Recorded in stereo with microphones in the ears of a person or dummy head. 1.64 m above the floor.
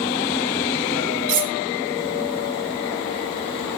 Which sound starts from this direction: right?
Cutlery clinking, at 1.3 s.